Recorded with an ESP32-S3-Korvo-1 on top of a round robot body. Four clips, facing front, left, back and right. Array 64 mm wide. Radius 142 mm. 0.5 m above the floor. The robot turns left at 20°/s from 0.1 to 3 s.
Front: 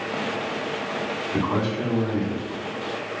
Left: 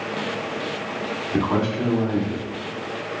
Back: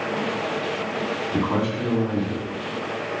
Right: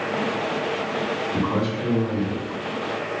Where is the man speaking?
120° left, 1.7 m; by 2.5 s 95° left, 1.7 m.